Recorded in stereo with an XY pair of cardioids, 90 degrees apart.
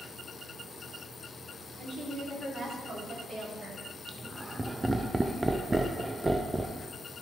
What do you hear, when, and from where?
1.8 s a woman speaking: 50° right, 3.5 m; by 3.8 s 45° right, 5.5 m
4.1 s laughter: 15° right, 0.5 m